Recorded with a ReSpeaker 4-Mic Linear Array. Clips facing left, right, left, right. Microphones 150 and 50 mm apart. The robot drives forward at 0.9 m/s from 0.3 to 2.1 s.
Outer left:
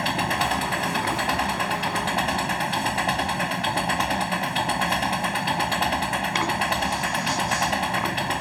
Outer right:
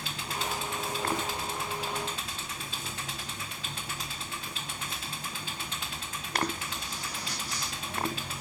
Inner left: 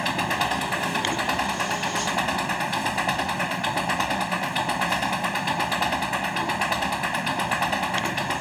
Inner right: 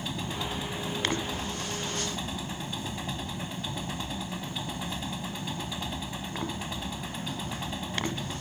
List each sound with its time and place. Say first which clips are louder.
0.0 s an engine running: outer left 12 dB, inner left 10 dB; 75° left (ahead or behind); by 8.4 s 80° left